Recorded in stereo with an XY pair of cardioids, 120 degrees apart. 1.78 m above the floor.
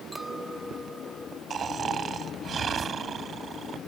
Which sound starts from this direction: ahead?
A clink, at 0.1 s.